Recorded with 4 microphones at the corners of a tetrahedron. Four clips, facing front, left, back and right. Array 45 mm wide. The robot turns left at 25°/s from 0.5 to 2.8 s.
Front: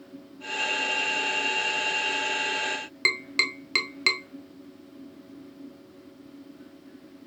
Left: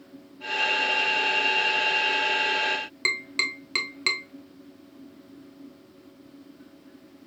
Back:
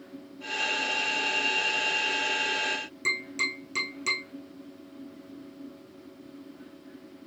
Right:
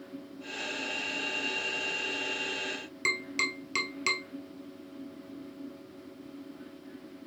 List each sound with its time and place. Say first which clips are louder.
3.0 s tapping: left 3 dB, front 4 dB; 15° left, 0.7 m